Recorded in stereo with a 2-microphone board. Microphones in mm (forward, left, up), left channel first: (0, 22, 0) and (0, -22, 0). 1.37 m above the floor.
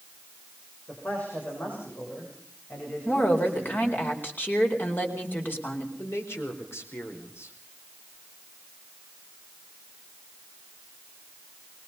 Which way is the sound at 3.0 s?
45° left (ahead or behind).